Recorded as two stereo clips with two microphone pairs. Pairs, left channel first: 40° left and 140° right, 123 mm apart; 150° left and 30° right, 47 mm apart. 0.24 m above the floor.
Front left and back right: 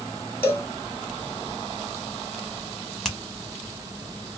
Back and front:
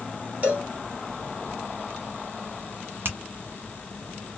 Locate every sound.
0.4 s a cowbell: 15° right, 1.5 m
3.0 s a finger snap: 45° right, 1.2 m